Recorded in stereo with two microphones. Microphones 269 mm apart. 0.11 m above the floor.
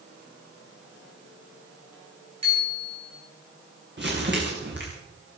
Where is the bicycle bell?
70° right (ahead or behind), 7.5 m.